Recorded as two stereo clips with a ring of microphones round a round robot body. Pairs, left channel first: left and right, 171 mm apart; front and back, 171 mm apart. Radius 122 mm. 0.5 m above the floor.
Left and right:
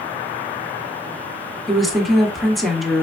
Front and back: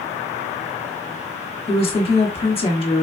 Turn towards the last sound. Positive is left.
turn(degrees=0)